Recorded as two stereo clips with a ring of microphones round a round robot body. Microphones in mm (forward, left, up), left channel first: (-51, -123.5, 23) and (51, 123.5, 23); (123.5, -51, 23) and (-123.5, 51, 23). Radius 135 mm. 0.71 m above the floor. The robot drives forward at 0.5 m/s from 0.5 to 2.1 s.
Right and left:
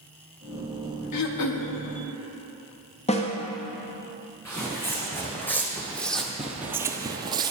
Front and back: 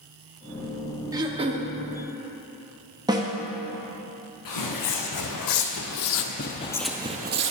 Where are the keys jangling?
No keys jangling in this recording.